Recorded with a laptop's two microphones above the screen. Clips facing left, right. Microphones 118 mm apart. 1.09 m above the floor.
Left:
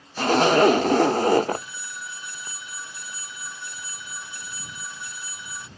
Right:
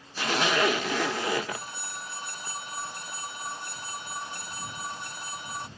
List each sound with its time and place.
0.2 s a zipper: 40° left (ahead or behind)
1.5 s a phone ringing: 50° right (ahead or behind)